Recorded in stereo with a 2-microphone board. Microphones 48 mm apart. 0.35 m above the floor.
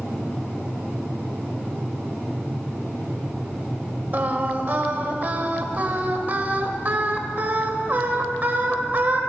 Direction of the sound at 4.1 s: 40° right (ahead or behind).